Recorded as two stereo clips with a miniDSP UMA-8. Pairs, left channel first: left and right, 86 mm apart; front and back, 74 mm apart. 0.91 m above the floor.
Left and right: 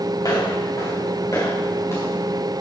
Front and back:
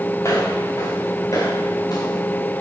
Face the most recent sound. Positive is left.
turn(degrees=30)